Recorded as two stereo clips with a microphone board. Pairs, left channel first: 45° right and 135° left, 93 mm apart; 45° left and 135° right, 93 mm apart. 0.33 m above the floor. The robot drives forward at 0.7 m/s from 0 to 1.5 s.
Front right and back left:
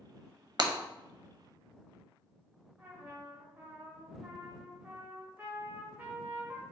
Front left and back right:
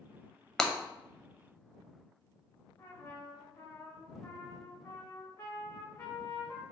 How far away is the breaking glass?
About 0.7 m.